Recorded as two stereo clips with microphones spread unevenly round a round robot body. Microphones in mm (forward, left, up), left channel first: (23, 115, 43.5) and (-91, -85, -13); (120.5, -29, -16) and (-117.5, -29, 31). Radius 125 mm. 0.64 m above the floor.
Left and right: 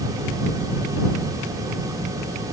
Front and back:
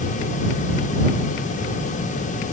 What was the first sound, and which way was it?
Only background noise.